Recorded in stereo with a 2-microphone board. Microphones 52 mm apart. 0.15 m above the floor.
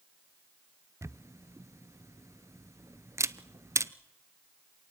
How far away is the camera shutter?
About 0.6 m.